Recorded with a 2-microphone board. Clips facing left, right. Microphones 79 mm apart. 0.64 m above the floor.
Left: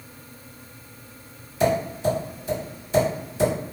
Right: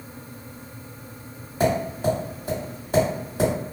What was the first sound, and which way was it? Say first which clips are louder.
Tapping: even; 55° right (ahead or behind).